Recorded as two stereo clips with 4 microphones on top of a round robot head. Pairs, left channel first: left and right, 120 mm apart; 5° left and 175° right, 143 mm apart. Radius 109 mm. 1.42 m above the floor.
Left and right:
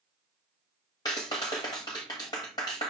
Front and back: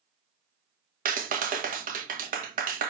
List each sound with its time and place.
1.1 s a clap: 160° left, 1.4 m